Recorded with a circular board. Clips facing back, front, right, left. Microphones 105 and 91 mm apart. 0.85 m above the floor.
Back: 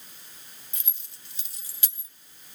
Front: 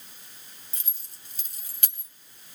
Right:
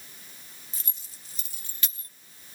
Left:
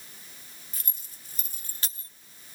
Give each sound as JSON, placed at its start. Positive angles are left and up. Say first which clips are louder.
{"t": 0.7, "sound": "keys jangling", "louder": "even, even", "azimuth_deg": 50, "distance_m": 1.9}